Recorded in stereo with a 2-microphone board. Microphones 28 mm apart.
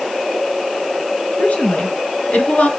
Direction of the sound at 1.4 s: 65° left (ahead or behind).